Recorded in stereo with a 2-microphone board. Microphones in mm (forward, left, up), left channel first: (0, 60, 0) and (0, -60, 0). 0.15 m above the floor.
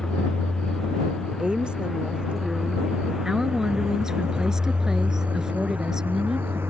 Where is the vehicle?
5° left (ahead or behind); by 6.7 s 20° right (ahead or behind).